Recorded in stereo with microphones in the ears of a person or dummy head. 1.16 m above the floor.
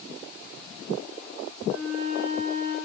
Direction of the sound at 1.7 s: 45° right (ahead or behind).